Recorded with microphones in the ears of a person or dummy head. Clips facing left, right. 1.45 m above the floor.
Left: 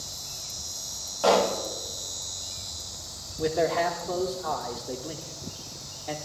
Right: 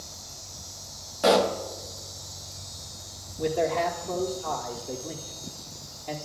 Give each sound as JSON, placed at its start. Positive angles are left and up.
{"t": 1.2, "sound": "a pop", "side_deg": -25, "distance_m": 0.9}
{"t": 3.4, "sound": "a man speaking", "side_deg": 0, "distance_m": 1.1}